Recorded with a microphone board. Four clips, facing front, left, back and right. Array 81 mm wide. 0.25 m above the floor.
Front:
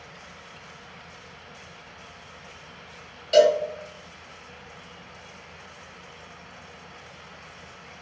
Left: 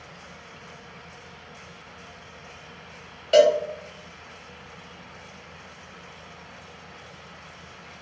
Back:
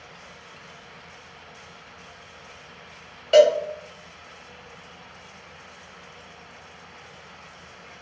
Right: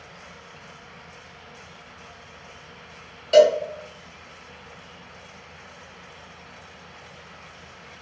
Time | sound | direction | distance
3.3 | a cowbell | 160° left | 1.0 m